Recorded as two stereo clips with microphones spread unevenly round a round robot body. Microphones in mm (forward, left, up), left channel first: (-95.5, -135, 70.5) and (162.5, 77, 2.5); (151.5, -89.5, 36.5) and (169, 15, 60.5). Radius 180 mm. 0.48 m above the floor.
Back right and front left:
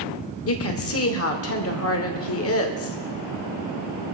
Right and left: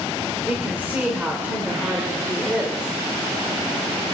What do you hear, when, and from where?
0.5 s a woman speaking: 165° left, 1.6 m